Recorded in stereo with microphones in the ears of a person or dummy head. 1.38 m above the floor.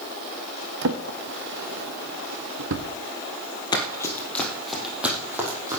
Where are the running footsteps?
25° left (ahead or behind), 2.5 m; by 5.8 s 15° right (ahead or behind), 4 m.